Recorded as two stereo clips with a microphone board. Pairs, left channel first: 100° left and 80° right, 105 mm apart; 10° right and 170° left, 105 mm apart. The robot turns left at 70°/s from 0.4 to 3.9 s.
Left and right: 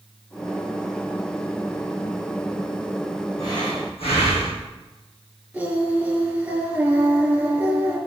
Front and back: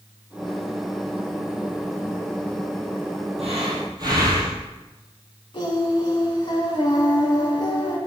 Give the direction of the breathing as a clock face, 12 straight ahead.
7 o'clock.